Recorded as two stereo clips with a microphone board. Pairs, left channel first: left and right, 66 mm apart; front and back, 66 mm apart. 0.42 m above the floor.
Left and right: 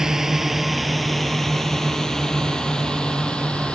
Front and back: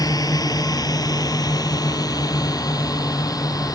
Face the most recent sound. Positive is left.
turn(degrees=15)